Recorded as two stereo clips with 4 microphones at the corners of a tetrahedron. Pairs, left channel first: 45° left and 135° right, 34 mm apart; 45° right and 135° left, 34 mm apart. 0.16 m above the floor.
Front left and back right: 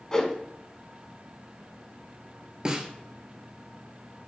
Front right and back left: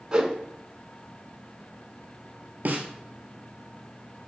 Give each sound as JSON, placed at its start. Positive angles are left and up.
{"t": 0.1, "sound": "a whoosh", "azimuth_deg": 100, "distance_m": 0.6}
{"t": 2.6, "sound": "a snare drum", "azimuth_deg": 160, "distance_m": 0.7}